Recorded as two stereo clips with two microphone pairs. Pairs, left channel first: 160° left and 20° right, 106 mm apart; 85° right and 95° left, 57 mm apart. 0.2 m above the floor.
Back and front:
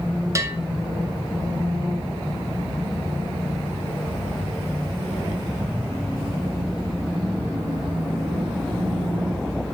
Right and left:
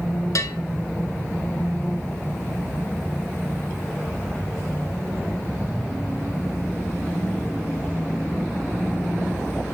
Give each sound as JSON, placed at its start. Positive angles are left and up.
{"t": 0.3, "sound": "a bell", "azimuth_deg": -80, "distance_m": 0.8}